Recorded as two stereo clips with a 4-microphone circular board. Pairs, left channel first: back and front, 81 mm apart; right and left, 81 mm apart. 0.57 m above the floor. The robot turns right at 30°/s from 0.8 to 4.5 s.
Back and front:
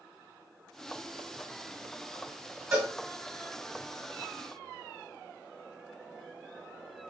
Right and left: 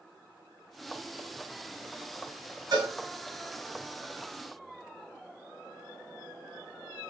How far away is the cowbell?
About 2 m.